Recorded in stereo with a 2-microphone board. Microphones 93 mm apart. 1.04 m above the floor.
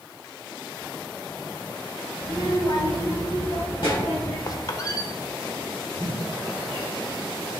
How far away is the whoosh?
About 3.5 m.